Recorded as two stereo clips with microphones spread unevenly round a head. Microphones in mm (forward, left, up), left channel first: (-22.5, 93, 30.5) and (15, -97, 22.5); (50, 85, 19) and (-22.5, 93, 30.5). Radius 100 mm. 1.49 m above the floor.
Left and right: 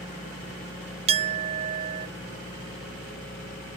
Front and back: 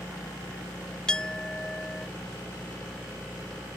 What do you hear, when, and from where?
1.1 s a clink: 95° right